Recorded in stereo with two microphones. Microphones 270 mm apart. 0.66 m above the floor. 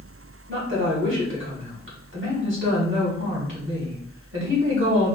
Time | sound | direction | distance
0.5 | a woman speaking | 50° right (ahead or behind) | 1.7 m